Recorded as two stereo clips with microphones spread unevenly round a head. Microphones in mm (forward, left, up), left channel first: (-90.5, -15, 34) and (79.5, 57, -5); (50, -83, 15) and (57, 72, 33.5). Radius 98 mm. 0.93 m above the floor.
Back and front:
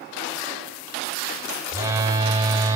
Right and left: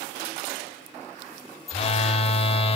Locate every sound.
1.7 s a phone buzzing: 45° right, 0.9 m